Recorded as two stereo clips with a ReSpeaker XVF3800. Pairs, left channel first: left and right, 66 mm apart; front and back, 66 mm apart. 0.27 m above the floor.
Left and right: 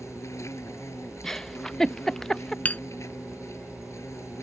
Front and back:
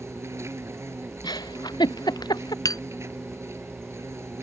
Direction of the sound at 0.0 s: 135° left.